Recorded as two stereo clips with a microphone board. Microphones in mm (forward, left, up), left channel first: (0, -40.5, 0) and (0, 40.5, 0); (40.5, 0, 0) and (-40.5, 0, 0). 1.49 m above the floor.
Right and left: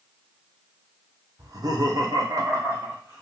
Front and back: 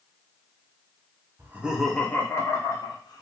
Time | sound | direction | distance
1.4 | laughter | 125° left | 0.6 m